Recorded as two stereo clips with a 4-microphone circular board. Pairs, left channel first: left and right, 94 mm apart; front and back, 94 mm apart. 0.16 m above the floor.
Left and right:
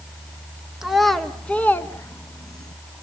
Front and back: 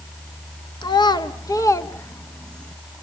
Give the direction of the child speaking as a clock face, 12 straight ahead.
12 o'clock.